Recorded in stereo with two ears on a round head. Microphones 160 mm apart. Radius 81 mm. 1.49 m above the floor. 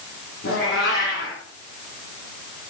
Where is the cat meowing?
60° left (ahead or behind), 9 m.